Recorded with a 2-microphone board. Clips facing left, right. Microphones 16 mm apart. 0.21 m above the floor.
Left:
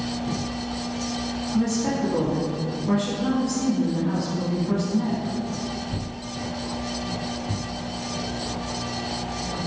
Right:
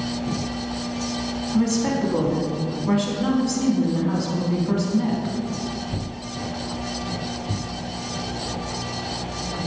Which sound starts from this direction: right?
A woman speaking, at 1.5 s.